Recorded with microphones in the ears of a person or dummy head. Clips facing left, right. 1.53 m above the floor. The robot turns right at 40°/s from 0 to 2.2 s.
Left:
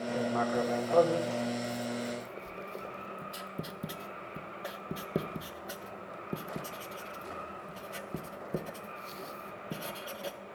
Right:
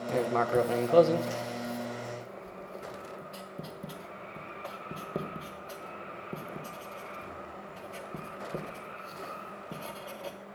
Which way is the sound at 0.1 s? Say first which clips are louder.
Right 4 dB; 65° right (ahead or behind).